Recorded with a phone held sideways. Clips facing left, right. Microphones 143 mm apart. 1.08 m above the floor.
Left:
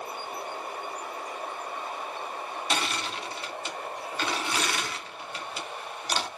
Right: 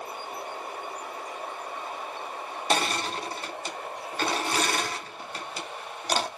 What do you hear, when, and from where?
2.7 s crushing: 40° right (ahead or behind), 0.5 m